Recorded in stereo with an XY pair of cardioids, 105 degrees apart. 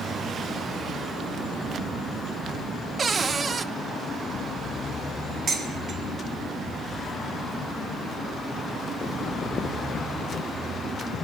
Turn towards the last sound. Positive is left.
turn(degrees=-50)